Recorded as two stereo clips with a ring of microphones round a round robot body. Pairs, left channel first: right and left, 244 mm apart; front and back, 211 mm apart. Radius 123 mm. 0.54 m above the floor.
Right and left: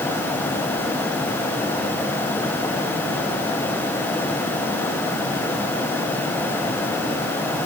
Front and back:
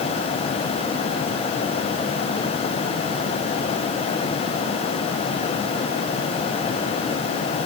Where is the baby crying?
I don't hear a baby crying.